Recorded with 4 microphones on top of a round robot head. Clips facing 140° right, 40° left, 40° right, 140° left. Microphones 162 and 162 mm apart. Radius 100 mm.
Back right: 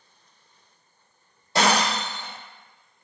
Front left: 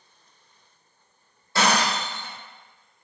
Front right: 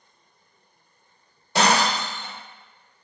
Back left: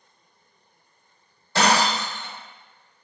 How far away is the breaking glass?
About 0.7 m.